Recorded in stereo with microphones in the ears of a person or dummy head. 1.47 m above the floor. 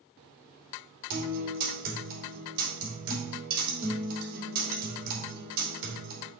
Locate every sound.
1.1 s a guitar: 50° right (ahead or behind), 3 m